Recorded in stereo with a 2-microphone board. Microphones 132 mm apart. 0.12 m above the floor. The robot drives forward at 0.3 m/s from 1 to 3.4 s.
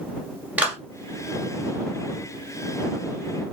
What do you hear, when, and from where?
0.6 s a clap: 10° right (ahead or behind), 2 m